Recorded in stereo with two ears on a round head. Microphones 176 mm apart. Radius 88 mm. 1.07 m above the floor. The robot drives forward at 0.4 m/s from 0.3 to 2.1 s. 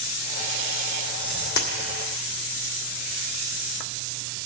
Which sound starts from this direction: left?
A dropped coin, at 1.6 s.